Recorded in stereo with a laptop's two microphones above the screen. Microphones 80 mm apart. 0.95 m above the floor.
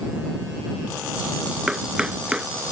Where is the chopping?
10° right (ahead or behind).